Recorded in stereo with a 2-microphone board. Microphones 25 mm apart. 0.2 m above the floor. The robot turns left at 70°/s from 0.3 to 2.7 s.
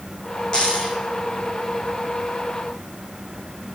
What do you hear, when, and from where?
0.5 s a dropped coin: 140° left, 1.9 m; by 1.0 s 110° left, 1.9 m